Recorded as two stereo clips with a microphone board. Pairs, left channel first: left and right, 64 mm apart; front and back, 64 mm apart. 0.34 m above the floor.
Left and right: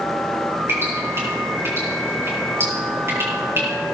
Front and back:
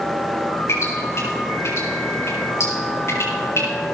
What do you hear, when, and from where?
0.7 s dripping: 40° right, 8 m